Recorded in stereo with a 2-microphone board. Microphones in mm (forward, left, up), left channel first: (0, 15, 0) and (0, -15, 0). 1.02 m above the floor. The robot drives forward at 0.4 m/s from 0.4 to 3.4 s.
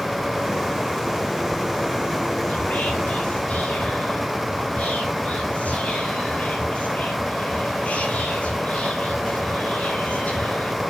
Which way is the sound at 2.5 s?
70° left (ahead or behind).